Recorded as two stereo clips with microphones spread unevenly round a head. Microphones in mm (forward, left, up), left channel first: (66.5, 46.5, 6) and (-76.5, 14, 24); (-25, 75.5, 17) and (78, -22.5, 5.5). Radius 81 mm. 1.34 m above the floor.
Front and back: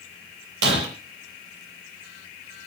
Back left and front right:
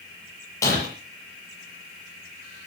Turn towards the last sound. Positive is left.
turn(degrees=-155)